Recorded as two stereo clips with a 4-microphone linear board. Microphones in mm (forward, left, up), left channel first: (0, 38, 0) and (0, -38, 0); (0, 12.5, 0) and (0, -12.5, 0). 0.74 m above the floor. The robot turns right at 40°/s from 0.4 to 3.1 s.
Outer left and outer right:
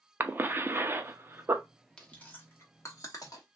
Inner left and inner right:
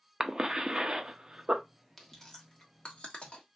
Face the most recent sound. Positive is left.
turn(degrees=50)  # may be behind; listen again after turning